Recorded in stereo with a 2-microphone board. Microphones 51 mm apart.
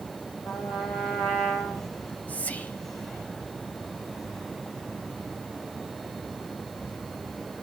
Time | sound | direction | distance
0.5 | a trumpet | 55° left (ahead or behind) | 4 m
2.0 | whispering | 30° left (ahead or behind) | 1.2 m